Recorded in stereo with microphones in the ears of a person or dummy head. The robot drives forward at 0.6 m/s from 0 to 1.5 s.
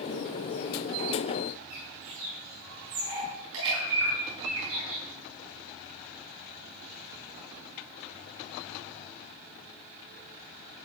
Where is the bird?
75° right (ahead or behind), 6.5 m.